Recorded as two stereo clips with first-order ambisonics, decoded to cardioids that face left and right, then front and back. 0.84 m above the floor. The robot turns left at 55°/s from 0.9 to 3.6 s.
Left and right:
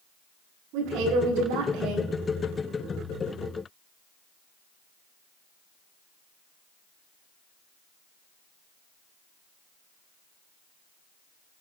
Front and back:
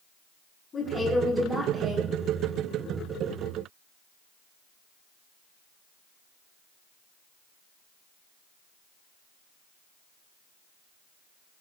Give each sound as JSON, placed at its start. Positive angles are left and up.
{"t": 0.7, "sound": "a woman speaking", "azimuth_deg": -65, "distance_m": 6.0}